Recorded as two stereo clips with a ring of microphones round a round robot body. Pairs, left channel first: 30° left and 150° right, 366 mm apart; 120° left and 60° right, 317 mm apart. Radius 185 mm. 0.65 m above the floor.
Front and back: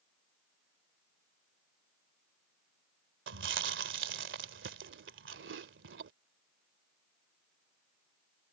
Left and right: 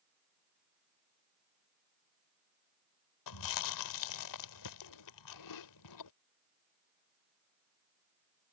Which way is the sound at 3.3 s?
150° left.